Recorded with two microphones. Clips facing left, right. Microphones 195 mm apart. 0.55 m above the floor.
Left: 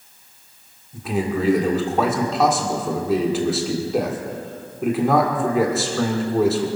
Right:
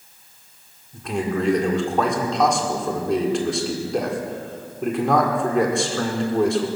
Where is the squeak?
I don't hear a squeak.